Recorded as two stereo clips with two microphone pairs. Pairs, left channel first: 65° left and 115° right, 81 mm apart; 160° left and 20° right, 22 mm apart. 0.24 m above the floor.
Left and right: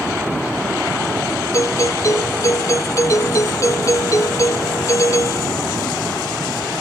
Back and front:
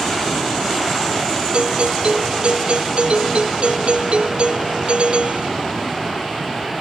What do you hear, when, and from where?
1.5 s a doorbell: 15° left